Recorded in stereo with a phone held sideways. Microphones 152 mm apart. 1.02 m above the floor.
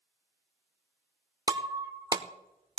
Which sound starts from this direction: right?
Breaking glass, at 1.5 s.